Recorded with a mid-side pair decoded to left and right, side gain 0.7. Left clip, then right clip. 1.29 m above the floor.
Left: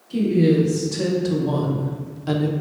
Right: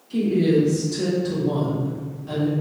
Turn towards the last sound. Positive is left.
turn(degrees=65)